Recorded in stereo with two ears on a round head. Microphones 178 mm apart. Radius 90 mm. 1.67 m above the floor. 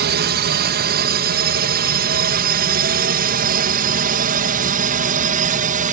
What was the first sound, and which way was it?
A drone, 55° right (ahead or behind).